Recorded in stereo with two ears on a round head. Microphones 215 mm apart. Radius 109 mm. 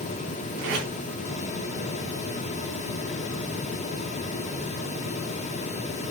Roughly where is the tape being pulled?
Right.